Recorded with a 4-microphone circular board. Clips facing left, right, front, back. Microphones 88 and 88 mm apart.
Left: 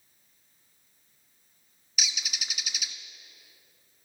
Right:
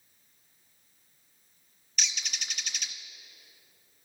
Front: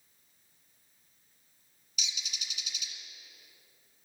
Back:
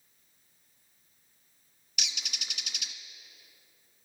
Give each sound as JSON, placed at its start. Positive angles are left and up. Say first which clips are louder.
{"t": 2.0, "sound": "a bird", "louder": "left 1 dB, back 2 dB", "azimuth_deg": 175, "distance_m": 0.8}